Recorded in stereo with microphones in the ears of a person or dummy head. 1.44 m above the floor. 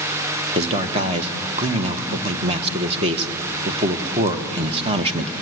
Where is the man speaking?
35° right (ahead or behind), 1.3 m.